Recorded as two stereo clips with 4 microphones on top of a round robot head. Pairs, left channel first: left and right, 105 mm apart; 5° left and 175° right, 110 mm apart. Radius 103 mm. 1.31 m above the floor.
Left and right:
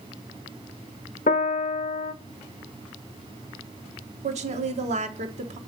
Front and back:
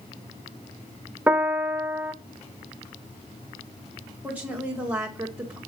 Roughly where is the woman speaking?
Right.